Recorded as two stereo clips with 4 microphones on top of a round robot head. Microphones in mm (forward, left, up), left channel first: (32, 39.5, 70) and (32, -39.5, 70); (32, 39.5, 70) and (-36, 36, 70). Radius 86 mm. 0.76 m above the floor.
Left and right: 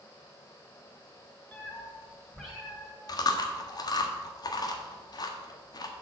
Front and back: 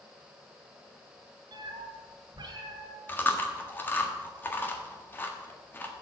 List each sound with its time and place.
1.5 s a cat meowing: 165° left, 2.5 m; by 3.0 s 165° right, 1.6 m
3.1 s chewing: 65° left, 1.5 m